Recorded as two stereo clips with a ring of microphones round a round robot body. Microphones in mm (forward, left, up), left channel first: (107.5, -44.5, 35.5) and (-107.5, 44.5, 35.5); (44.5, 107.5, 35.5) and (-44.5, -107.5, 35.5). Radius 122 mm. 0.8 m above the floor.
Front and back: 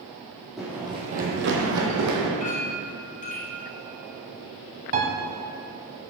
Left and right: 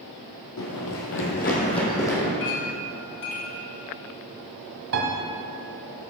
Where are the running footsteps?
70° left, 1.7 m; by 2.3 s 150° left, 2.5 m.